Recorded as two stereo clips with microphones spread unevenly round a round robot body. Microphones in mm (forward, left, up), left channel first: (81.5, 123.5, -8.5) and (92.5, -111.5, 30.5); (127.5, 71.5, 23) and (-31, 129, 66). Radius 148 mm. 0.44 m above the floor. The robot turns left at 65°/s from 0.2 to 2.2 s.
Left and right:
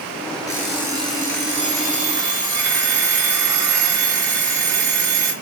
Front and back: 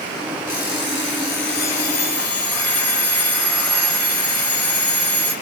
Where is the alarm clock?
20° left, 4.5 m; by 5.3 s 95° right, 4.5 m.